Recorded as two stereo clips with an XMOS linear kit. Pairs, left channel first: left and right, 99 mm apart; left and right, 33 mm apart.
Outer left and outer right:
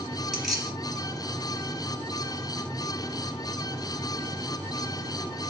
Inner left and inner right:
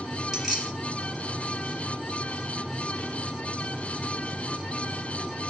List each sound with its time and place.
0.3 s keys jangling: centre (ahead or behind), 3 m